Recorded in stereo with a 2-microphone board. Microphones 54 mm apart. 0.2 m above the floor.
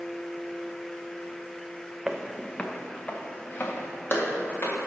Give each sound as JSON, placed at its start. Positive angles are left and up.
{"t": 2.1, "sound": "footsteps", "side_deg": -10, "distance_m": 0.6}